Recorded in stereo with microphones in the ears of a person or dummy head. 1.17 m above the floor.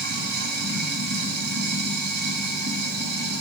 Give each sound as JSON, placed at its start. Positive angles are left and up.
{"t": 0.0, "sound": "running water", "side_deg": -60, "distance_m": 1.7}